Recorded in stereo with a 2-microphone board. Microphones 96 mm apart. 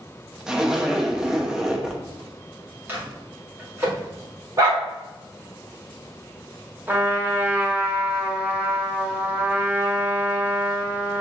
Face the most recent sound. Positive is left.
turn(degrees=-20)  # may be behind; listen again after turning